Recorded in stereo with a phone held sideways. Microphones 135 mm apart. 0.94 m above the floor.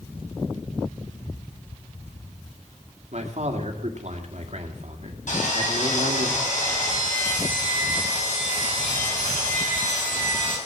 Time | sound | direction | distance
3.1 | a man speaking | 55° right (ahead or behind) | 2.5 m
5.3 | sawing | 70° left (ahead or behind) | 6.5 m